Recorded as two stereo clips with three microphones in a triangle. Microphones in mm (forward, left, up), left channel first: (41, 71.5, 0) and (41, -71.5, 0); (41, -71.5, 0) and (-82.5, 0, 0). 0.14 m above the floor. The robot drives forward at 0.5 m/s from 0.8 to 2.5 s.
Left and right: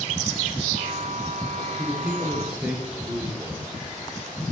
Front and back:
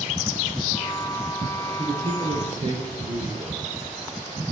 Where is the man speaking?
170° right, 2.5 m.